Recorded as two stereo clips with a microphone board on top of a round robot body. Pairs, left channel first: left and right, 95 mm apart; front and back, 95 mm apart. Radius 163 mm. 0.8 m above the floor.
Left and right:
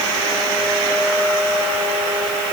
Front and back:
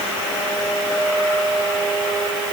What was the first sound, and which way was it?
Only background noise.